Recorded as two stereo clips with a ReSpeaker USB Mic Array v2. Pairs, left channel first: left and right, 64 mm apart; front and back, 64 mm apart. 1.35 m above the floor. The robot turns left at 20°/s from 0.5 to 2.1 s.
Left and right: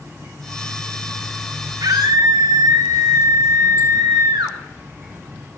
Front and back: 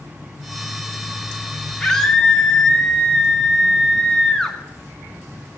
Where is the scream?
75° right, 2.5 m; by 4.6 s 85° right, 2.5 m.